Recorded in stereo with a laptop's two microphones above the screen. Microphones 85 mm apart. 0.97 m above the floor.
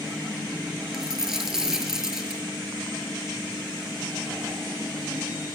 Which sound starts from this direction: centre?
A dropped coin, at 0.9 s.